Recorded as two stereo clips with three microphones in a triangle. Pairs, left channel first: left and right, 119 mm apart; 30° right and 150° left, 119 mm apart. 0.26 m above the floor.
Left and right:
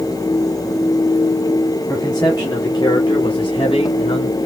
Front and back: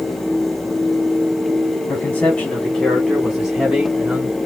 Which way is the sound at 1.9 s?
35° left.